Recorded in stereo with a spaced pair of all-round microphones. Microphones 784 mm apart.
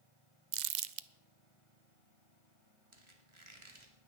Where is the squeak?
40° right (ahead or behind), 1.6 m.